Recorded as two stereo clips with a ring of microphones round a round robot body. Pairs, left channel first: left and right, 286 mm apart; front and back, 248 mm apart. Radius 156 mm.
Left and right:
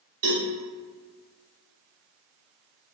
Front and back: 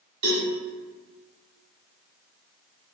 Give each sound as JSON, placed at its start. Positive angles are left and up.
{"t": 0.2, "sound": "a cowbell", "azimuth_deg": -155, "distance_m": 0.8}